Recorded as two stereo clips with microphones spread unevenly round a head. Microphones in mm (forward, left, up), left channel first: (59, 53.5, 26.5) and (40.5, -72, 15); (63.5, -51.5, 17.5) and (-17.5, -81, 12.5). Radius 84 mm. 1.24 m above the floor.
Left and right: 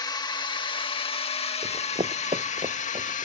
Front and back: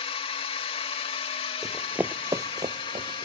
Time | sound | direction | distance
0.0 | a drone | 25° left | ?
1.6 | running footsteps | 70° right | ?